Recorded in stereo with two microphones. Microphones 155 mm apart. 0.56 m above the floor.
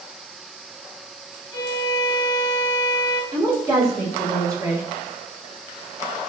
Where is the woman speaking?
20° right (ahead or behind), 1.3 m.